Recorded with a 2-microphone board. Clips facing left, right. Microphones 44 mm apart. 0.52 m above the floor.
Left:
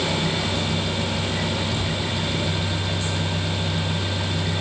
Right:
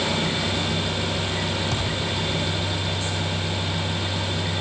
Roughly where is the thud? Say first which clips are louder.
Even; right.